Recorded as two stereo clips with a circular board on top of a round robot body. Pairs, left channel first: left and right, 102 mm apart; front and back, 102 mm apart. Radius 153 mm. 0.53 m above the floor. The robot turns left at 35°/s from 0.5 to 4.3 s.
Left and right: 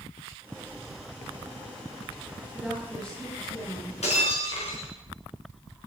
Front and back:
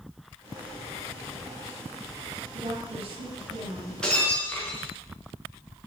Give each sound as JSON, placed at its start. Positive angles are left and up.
{"t": 2.5, "sound": "a woman speaking", "azimuth_deg": -170, "distance_m": 8.5}
{"t": 4.0, "sound": "breaking glass", "azimuth_deg": 85, "distance_m": 5.0}